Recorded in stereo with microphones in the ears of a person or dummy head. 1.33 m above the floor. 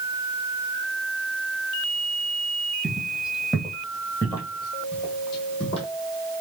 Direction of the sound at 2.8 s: Centre (ahead or behind).